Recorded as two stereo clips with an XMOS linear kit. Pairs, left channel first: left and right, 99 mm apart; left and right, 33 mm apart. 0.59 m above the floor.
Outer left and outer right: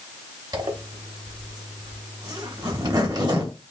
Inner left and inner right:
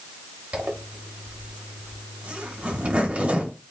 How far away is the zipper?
About 0.9 m.